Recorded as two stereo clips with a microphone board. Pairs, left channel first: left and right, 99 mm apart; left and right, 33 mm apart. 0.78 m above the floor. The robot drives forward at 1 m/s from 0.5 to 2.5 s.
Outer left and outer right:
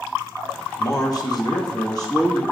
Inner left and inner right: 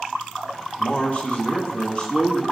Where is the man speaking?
35° left (ahead or behind), 1.3 m; by 2.4 s 30° left (ahead or behind), 1.3 m.